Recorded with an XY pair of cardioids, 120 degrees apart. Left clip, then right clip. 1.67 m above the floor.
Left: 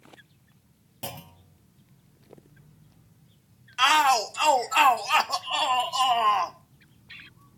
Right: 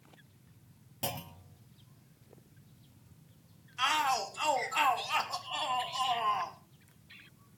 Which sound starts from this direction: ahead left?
A shout, at 3.8 s.